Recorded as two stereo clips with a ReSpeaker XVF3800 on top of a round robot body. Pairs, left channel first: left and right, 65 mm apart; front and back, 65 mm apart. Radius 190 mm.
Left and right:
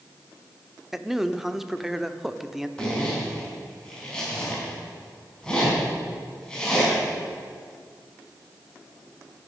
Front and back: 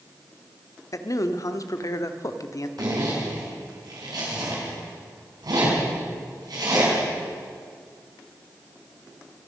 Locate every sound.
0.9 s a man speaking: 5° right, 1.2 m
2.8 s a zipper: 170° left, 4.5 m